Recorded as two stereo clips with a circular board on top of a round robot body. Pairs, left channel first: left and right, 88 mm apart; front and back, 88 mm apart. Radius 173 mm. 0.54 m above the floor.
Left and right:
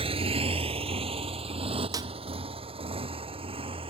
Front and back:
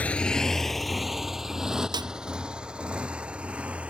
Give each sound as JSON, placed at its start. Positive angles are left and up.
{"t": 0.0, "sound": "a motorcycle", "azimuth_deg": -75}
{"t": 1.9, "sound": "a snare drum", "azimuth_deg": -140}